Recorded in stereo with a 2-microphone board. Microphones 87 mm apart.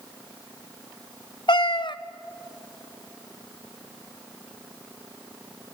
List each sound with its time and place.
1.5 s a cat meowing: 65° left (ahead or behind), 0.6 m